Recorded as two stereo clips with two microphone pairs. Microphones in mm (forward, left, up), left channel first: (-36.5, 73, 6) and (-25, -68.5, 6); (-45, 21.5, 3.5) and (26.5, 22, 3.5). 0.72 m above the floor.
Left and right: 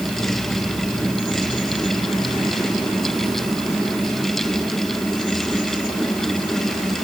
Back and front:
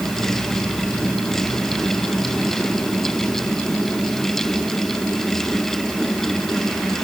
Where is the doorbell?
I don't hear a doorbell.